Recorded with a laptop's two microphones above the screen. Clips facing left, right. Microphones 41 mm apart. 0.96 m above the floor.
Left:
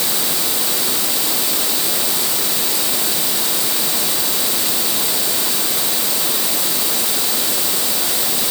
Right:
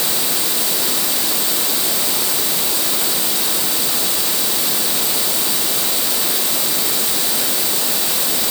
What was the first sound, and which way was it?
Only background noise.